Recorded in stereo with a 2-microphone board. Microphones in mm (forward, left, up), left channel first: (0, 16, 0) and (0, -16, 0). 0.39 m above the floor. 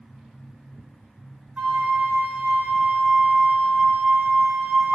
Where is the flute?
85° right, 1.0 m.